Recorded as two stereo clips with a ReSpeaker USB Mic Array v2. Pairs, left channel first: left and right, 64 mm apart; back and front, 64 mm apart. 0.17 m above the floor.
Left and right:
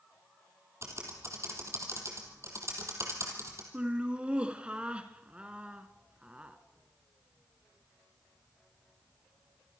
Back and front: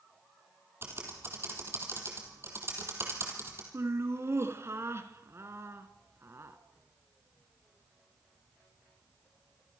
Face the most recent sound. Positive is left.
turn(degrees=-25)